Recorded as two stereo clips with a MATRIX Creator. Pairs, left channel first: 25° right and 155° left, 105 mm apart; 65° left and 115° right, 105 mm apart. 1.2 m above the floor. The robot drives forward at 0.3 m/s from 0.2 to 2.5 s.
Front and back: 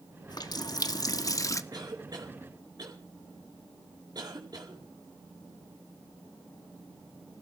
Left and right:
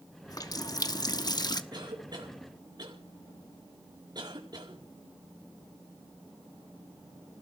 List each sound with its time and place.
0.3 s a running tap: 20° left, 1.2 m; by 1.6 s 30° left, 0.9 m
1.7 s a cough: 155° right, 4 m